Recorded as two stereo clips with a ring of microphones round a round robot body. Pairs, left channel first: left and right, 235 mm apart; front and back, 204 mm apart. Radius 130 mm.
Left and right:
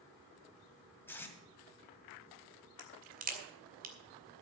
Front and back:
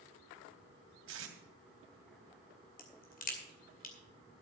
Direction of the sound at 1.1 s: 170° left.